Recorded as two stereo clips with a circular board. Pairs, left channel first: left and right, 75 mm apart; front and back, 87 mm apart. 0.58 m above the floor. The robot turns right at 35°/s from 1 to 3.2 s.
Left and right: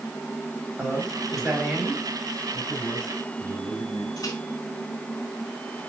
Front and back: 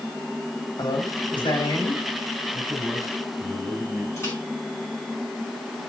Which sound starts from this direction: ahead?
A man speaking, at 0.8 s.